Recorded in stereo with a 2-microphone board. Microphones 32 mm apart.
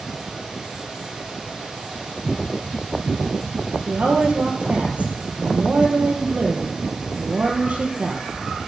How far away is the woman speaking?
About 2.5 m.